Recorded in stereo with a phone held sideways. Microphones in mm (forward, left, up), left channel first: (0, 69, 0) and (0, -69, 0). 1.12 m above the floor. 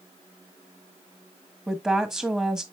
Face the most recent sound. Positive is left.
turn(degrees=-5)  # may be behind; listen again after turning